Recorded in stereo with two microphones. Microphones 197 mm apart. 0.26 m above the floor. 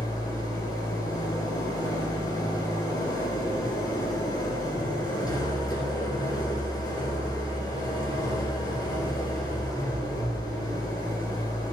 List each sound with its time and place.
0.0 s an engine running: 20° left (ahead or behind), 2.5 m